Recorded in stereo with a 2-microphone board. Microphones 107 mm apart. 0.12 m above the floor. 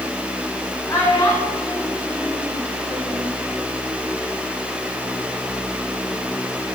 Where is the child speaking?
30° left (ahead or behind), 5 m; by 3.2 s 45° left (ahead or behind), 3.5 m.